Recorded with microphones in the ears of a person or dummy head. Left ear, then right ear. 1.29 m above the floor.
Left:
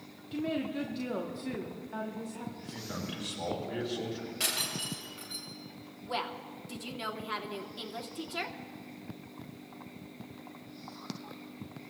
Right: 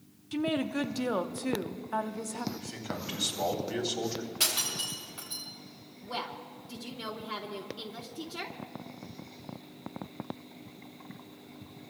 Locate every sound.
0.3 s a woman speaking: 45° right (ahead or behind), 0.8 m
2.5 s a man speaking: 85° right, 3.5 m
4.4 s breaking glass: 10° right (ahead or behind), 4 m
6.0 s a woman speaking: 15° left (ahead or behind), 0.9 m